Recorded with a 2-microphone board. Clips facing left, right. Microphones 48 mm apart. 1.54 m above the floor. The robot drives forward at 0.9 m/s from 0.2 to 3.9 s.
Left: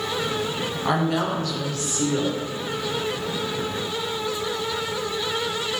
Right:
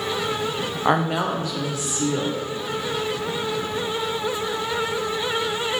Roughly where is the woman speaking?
Right.